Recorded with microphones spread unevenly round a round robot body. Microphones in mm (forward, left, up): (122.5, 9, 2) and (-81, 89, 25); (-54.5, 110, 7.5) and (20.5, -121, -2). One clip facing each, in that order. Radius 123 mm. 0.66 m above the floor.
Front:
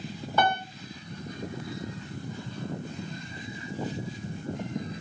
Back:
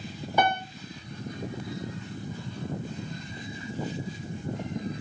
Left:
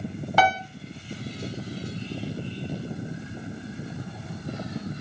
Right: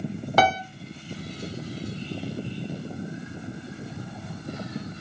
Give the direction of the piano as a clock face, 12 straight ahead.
4 o'clock.